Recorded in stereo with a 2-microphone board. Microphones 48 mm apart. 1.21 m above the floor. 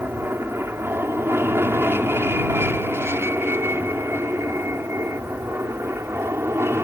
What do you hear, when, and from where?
0.0 s an aircraft: 55° right (ahead or behind); by 6.8 s 60° right (ahead or behind)